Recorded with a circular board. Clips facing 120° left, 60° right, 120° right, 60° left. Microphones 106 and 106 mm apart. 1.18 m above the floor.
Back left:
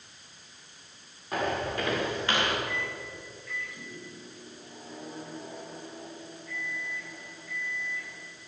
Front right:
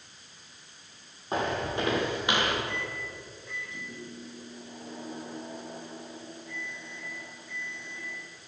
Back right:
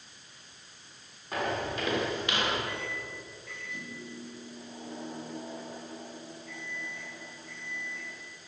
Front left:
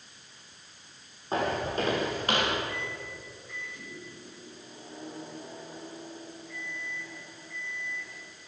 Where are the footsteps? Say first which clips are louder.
Even, front left 3 dB; straight ahead, 6 m; by 2.6 s 15° left, 5 m.